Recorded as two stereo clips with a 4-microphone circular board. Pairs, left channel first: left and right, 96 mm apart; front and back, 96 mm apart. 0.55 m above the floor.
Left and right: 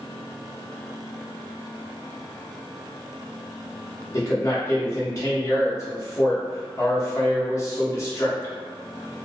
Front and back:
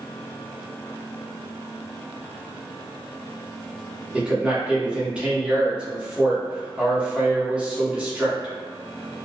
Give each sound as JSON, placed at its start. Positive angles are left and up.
{"t": 4.1, "sound": "a man speaking", "azimuth_deg": 110, "distance_m": 1.0}